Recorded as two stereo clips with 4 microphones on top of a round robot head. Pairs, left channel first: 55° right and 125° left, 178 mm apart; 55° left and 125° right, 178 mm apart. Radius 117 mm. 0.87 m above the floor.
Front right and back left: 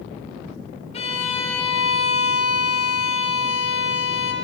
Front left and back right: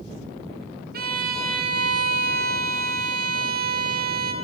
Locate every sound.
0.9 s a violin: 105° right, 1.3 m